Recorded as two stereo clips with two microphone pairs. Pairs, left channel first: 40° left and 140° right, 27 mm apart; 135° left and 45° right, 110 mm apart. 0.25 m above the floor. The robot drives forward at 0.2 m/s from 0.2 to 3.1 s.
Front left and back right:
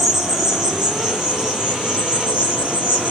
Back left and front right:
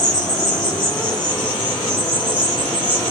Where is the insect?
150° left, 0.7 m; by 3.1 s 165° left, 1.2 m.